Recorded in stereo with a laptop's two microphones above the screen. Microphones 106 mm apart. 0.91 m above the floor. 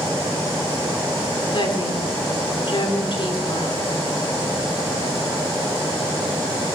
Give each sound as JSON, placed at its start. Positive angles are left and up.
{"t": 1.5, "sound": "a woman speaking", "side_deg": 55, "distance_m": 2.5}